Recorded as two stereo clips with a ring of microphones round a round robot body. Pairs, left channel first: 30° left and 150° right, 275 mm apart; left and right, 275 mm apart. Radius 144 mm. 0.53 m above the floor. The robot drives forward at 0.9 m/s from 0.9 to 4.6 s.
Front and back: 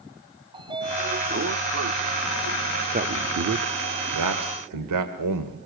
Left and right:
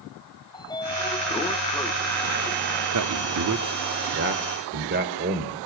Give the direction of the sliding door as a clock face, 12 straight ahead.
7 o'clock.